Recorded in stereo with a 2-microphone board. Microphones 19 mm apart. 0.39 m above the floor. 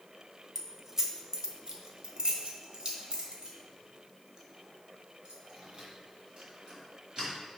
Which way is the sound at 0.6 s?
10° right (ahead or behind).